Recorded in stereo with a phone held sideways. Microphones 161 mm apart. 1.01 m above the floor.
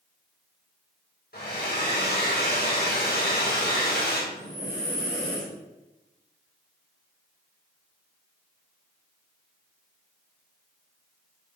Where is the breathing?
75° left (ahead or behind), 4.5 m.